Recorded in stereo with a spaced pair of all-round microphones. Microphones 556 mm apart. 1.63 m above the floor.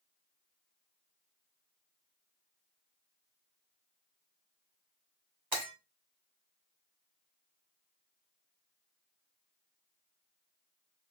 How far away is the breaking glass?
About 1.6 m.